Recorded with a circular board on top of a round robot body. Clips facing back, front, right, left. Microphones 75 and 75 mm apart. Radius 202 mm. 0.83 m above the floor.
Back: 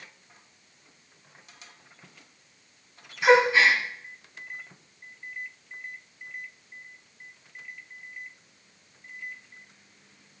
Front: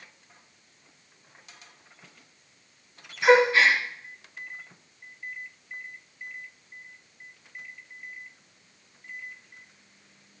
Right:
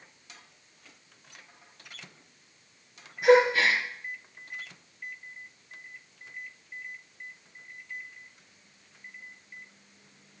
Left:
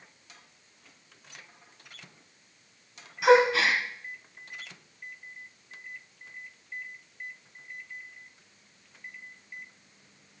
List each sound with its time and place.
3.2 s a gasp: 100° left, 3 m